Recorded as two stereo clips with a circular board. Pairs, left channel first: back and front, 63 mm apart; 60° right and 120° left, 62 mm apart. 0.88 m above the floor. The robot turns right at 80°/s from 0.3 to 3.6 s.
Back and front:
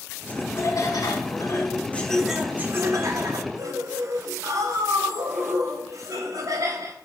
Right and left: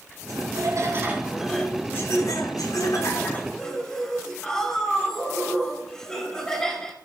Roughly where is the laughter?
Behind left.